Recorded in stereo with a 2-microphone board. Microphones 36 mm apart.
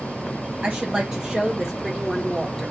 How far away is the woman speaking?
About 0.9 m.